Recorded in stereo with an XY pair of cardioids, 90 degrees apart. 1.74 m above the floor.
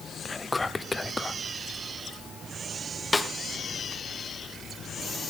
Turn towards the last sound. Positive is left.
turn(degrees=15)